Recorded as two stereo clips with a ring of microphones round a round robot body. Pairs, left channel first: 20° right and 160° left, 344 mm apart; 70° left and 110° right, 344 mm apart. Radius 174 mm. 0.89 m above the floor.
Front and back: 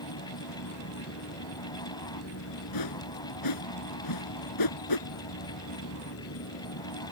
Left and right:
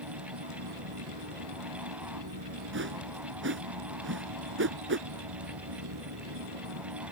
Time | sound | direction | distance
0.0 | an insect | 75° right | ?
2.7 | a whoosh | 55° right | ?